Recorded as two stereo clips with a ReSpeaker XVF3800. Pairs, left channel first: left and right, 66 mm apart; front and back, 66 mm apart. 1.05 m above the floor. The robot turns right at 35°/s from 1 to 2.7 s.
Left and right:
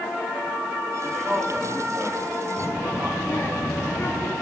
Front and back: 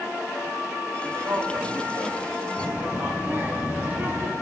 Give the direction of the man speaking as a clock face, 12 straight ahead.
6 o'clock.